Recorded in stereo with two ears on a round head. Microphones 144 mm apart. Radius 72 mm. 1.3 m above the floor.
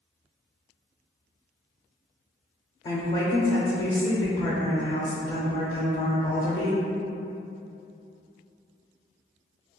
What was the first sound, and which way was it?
A woman speaking, 25° left (ahead or behind).